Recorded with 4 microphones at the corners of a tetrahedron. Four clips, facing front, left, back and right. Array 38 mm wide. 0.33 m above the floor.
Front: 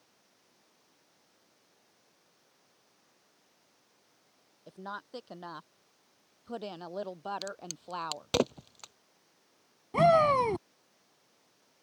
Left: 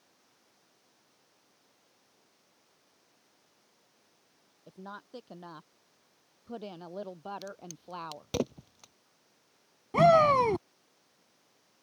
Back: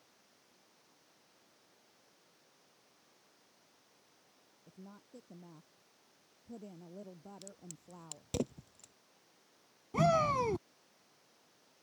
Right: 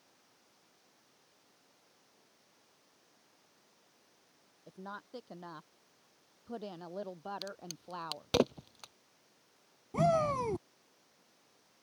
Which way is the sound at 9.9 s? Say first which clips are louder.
Left 9 dB, front 7 dB; 65° left.